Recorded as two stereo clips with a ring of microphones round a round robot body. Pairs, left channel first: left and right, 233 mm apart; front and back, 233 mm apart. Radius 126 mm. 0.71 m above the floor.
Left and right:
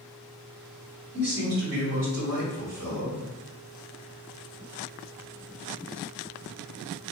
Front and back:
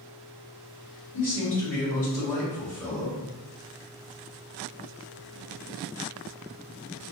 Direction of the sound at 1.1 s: 85° right.